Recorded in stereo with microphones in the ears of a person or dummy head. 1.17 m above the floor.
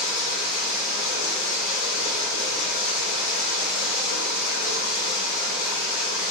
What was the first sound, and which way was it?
Running water, 65° left (ahead or behind).